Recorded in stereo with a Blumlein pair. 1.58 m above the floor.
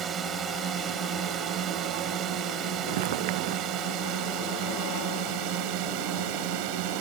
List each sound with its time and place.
0.0 s a drone: 25° right; by 7.0 s 45° right
2.9 s footsteps: 50° right